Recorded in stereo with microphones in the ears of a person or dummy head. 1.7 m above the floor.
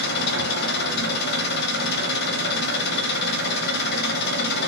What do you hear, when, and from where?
0.0 s an engine running: 60° left (ahead or behind), 0.7 m